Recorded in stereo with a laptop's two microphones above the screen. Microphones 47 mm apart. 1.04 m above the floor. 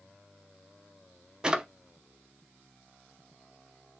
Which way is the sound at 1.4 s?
15° right (ahead or behind).